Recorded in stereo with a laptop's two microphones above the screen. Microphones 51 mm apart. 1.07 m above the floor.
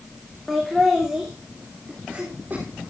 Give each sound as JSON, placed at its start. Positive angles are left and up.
{"t": 0.5, "sound": "laughter", "side_deg": 0, "distance_m": 2.5}